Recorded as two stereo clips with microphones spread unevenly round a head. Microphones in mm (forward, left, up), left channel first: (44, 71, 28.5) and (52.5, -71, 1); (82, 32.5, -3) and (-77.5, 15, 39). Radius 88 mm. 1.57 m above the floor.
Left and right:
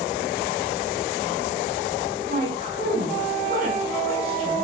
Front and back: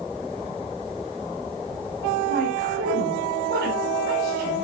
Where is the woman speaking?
140° right, 6.5 m.